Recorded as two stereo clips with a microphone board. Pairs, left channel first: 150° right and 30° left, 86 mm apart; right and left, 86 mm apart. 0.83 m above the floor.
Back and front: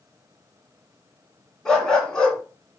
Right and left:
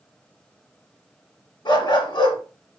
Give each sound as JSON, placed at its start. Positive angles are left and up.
{"t": 1.6, "sound": "a dog barking", "azimuth_deg": -65, "distance_m": 2.0}